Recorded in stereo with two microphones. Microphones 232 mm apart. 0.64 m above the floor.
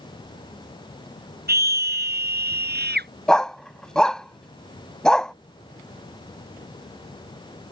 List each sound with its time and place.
1.5 s a scream: 45° right (ahead or behind)
3.3 s a dog barking: centre (ahead or behind)